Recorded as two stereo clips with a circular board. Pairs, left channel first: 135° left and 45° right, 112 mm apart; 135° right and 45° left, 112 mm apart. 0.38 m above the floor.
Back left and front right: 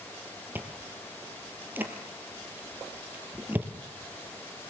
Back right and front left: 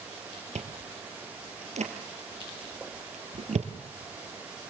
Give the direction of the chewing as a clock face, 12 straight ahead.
11 o'clock.